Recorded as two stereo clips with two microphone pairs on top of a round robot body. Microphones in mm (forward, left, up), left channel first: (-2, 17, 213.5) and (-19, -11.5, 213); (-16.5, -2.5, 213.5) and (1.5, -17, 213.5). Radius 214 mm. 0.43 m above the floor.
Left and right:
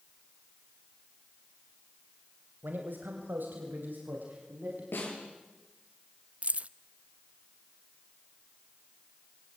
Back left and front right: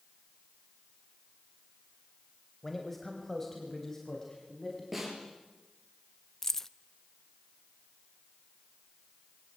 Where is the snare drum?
50° left, 8 m.